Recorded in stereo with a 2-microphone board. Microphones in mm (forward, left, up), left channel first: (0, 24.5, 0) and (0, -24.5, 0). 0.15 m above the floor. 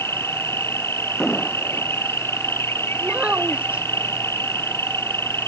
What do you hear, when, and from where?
0.0 s an insect: 65° left (ahead or behind)
1.2 s an explosion: 15° left (ahead or behind)
3.0 s a child speaking: 30° right (ahead or behind)